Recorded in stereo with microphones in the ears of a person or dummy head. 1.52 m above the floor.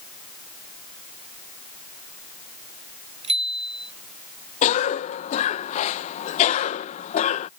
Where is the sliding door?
No sliding door in this recording.